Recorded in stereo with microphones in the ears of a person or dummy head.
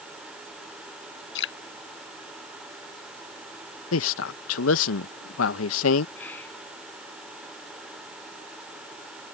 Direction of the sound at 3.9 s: 85° left.